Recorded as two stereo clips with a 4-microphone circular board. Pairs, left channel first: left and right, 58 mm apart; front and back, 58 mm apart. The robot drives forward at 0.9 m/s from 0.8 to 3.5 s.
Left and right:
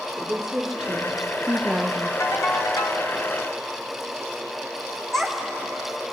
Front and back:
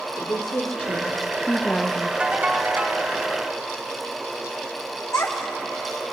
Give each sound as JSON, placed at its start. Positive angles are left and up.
{"t": 0.2, "sound": "a woman speaking", "azimuth_deg": -10, "distance_m": 1.1}
{"t": 2.2, "sound": "a ringtone", "azimuth_deg": 110, "distance_m": 1.3}
{"t": 5.1, "sound": "a child speaking", "azimuth_deg": 10, "distance_m": 2.0}